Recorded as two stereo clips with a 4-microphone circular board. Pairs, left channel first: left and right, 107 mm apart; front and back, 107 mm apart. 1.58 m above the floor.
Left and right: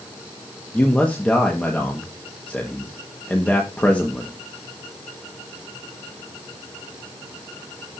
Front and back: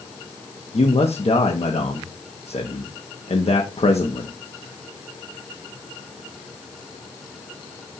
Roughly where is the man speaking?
Ahead.